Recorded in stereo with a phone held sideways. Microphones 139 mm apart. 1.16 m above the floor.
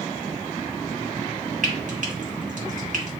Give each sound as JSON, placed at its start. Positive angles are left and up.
{"t": 1.6, "sound": "frying", "side_deg": -70, "distance_m": 1.5}